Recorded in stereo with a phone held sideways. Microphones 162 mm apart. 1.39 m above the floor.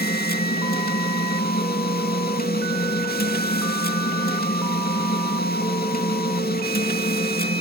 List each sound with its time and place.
0.0 s a machine running: 70° left (ahead or behind), 2 m